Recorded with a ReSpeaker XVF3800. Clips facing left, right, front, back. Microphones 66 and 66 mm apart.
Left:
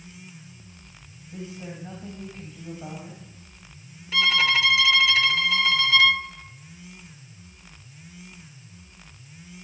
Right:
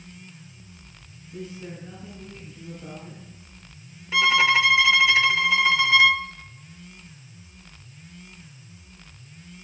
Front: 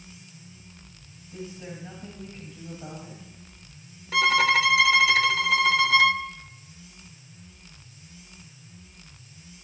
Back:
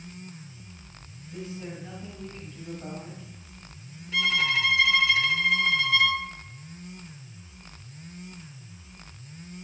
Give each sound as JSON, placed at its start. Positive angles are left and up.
{"t": 1.3, "sound": "a woman speaking", "azimuth_deg": 90, "distance_m": 1.9}
{"t": 4.1, "sound": "a violin", "azimuth_deg": -20, "distance_m": 0.5}